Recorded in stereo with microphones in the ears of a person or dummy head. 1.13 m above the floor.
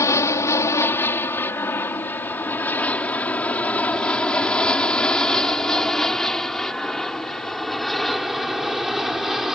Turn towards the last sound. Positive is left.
turn(degrees=0)  # may be behind; listen again after turning